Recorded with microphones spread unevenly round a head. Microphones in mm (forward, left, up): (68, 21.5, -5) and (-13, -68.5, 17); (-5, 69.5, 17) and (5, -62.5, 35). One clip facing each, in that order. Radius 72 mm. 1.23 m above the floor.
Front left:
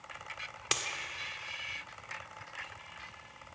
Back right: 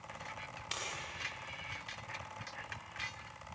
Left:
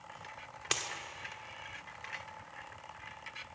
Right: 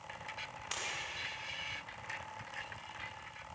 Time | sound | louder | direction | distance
0.7 | a dropped coin | front left 7 dB, left 6 dB | 75° left | 1.7 m